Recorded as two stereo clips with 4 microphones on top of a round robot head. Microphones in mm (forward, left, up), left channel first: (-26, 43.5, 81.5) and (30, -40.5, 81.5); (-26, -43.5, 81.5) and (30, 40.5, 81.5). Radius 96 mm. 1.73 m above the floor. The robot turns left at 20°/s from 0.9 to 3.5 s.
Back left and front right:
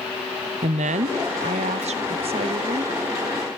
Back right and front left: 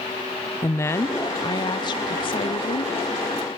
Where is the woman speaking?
55° right, 0.8 m; by 2.9 s 100° right, 0.8 m.